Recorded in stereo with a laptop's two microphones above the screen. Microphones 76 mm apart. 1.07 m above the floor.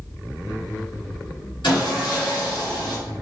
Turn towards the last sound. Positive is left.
turn(degrees=80)